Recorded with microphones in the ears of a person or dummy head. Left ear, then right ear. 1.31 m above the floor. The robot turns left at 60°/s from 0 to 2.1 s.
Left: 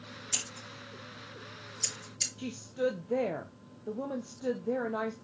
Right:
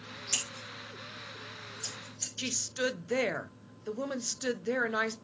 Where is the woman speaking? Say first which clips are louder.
Right 3 dB; 45° right (ahead or behind), 0.8 m.